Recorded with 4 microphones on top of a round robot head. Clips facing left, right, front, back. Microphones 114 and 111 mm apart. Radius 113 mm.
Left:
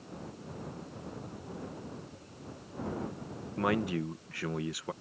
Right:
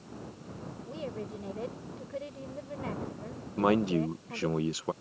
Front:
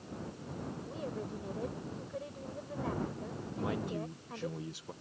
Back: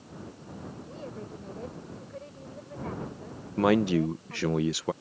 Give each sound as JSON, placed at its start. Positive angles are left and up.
{"t": 0.9, "sound": "a woman speaking", "azimuth_deg": -85}
{"t": 3.6, "sound": "a man speaking", "azimuth_deg": -155}